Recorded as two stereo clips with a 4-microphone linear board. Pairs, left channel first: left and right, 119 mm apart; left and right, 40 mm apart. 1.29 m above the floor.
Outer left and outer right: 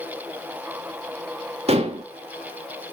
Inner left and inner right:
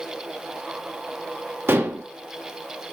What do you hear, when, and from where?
1.7 s dishes clattering: 60° right (ahead or behind), 1.5 m